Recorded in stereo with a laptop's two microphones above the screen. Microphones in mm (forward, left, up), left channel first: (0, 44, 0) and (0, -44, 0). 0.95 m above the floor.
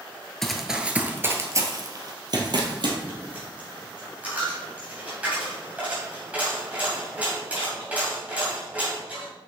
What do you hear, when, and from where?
0.4 s running footsteps: 5° left (ahead or behind), 0.9 m; by 3.0 s 60° right (ahead or behind), 1.7 m
3.1 s a dropped coin: 15° right (ahead or behind), 2 m